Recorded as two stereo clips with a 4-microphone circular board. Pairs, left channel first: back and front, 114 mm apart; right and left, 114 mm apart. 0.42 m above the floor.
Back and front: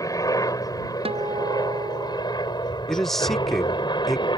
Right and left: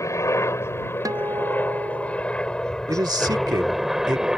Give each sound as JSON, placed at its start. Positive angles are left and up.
{"t": 0.0, "sound": "a helicopter", "azimuth_deg": -140}
{"t": 1.1, "sound": "a guitar", "azimuth_deg": 30}
{"t": 2.9, "sound": "a man speaking", "azimuth_deg": 95}